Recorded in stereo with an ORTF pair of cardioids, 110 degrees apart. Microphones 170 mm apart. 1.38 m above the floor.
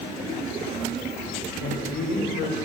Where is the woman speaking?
70° left, 4.5 m.